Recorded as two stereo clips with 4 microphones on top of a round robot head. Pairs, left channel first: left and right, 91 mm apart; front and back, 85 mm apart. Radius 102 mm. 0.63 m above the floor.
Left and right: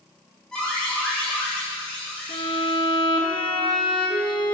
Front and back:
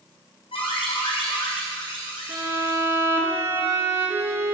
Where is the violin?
120° left, 3 m.